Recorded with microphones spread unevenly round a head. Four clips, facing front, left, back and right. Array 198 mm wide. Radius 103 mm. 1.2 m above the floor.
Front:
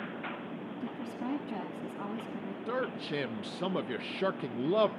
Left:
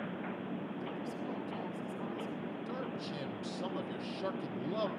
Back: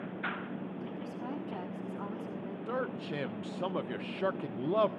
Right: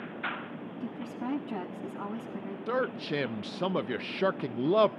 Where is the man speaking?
55° right, 0.5 m.